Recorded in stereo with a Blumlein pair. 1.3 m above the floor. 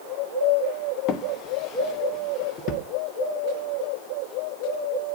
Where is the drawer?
35° left, 1.1 m.